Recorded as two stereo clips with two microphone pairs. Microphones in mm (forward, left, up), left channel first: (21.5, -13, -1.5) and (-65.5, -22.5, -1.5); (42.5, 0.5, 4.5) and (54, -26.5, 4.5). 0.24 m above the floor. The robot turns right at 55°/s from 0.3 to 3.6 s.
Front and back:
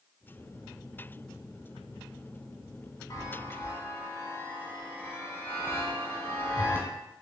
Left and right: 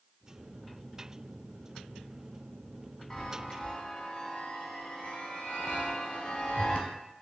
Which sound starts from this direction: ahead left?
A chime, at 3.1 s.